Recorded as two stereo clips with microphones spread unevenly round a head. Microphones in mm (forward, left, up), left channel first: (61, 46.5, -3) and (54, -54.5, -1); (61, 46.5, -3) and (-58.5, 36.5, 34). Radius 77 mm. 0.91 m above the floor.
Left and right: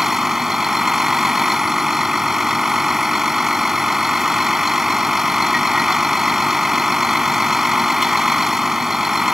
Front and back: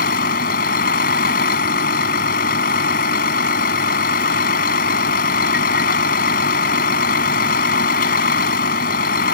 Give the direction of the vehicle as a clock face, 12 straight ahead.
12 o'clock.